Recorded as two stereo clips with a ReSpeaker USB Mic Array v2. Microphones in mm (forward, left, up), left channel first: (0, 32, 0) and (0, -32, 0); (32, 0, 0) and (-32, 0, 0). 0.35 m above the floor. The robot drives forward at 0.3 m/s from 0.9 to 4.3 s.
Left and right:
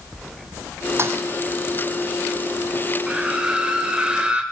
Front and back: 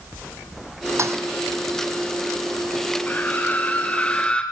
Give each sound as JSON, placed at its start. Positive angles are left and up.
{"t": 1.0, "sound": "a thud", "azimuth_deg": -140, "distance_m": 2.5}
{"t": 3.1, "sound": "a scream", "azimuth_deg": -25, "distance_m": 1.7}